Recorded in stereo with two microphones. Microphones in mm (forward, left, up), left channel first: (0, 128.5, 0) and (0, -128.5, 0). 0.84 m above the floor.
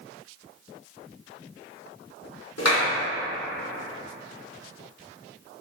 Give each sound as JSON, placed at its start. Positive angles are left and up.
{"t": 2.6, "sound": "a clap", "side_deg": 80, "distance_m": 2.0}